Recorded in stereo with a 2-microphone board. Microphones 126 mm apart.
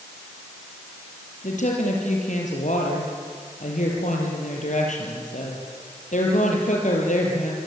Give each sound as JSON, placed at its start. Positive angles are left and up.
{"t": 1.4, "sound": "a woman speaking", "side_deg": 75, "distance_m": 6.5}